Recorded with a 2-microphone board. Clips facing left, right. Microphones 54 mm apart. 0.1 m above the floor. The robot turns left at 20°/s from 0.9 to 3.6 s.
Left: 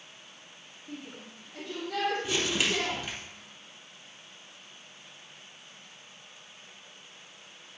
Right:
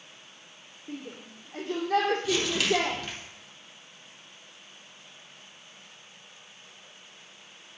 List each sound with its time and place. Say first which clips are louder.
0.9 s a shout: right 3 dB; 35° right (ahead or behind), 3 m; by 3.0 s 70° right (ahead or behind), 3 m
2.2 s crumpling: right 3 dB; 25° left (ahead or behind), 3.5 m; by 3.1 s 10° left (ahead or behind), 3.5 m